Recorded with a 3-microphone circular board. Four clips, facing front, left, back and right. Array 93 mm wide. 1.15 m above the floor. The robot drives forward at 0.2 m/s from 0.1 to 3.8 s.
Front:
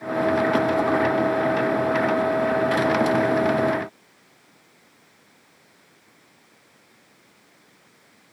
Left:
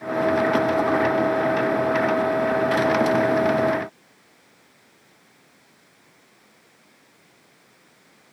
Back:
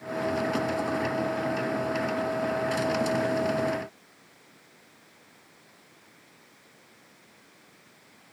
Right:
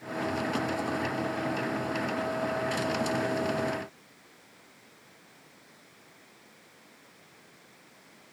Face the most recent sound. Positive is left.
No sound to turn to.